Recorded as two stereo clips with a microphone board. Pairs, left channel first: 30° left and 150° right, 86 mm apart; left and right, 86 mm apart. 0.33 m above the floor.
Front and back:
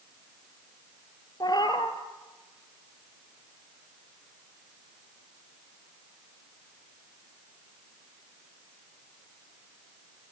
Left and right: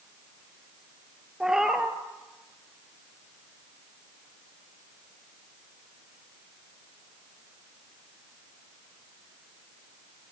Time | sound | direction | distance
1.4 | a cat meowing | 5° right | 2 m